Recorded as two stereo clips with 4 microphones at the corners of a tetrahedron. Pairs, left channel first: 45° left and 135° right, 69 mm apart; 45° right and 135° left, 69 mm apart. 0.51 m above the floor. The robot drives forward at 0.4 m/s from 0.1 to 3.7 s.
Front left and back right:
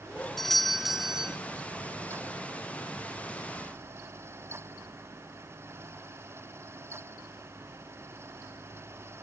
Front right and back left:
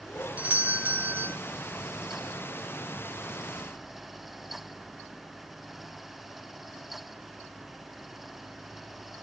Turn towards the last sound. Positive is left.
turn(degrees=170)